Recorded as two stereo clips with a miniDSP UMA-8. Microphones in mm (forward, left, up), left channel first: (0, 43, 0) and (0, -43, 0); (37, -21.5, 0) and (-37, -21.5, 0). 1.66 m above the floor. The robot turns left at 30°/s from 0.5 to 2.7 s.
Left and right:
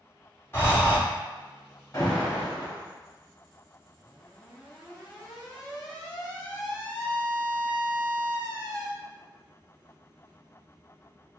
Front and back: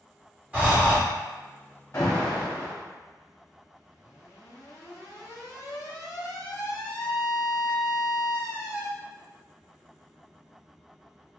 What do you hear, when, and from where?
0.5 s breathing: 125° left, 1.7 m; by 1.0 s 110° left, 1.7 m
1.9 s an alarm: 45° left, 1.5 m; by 8.9 s 25° left, 1.5 m